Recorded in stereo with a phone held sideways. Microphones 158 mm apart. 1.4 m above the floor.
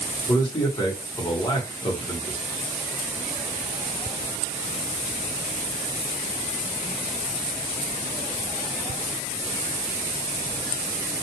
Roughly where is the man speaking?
Left.